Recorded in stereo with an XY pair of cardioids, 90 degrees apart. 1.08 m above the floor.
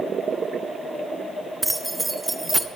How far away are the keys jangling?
About 0.6 m.